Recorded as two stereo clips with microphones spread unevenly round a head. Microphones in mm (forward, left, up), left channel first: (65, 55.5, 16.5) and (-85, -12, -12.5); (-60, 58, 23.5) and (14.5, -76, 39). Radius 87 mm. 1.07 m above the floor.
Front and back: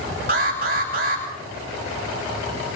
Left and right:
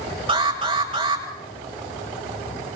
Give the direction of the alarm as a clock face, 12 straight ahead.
4 o'clock.